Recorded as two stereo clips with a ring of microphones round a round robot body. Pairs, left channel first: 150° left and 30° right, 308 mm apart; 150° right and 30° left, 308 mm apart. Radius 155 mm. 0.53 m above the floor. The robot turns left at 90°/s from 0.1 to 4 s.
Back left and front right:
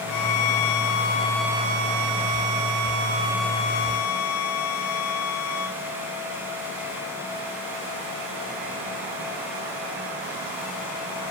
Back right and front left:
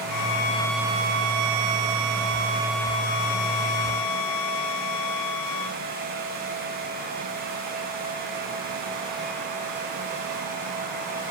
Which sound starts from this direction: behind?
A violin, at 0.1 s.